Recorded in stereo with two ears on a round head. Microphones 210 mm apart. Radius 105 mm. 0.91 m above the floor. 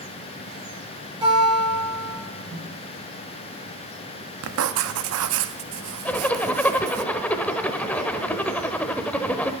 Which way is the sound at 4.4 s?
65° right (ahead or behind).